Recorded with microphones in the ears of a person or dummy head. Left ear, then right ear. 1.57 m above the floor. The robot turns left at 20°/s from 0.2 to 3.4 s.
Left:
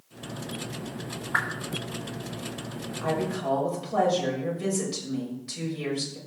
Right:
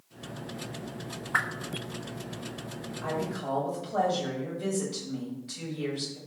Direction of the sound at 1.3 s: 5° right (ahead or behind).